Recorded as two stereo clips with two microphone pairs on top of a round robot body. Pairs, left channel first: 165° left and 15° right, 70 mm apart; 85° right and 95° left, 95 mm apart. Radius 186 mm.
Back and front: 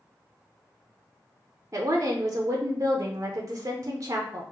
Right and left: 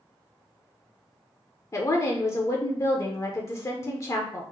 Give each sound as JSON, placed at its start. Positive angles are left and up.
{"t": 1.7, "sound": "a woman speaking", "azimuth_deg": -45, "distance_m": 0.7}